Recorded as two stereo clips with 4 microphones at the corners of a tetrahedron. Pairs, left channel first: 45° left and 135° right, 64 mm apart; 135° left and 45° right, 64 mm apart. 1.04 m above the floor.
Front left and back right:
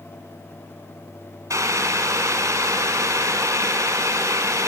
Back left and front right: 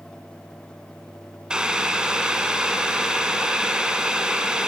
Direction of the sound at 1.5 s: 120° right.